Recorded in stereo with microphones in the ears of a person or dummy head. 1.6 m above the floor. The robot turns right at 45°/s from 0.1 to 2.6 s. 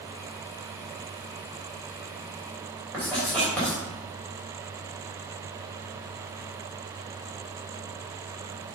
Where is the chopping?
No chopping in this recording.